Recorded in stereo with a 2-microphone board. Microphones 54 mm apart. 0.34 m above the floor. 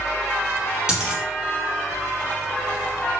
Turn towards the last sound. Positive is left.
turn(degrees=-15)  # may be behind; listen again after turning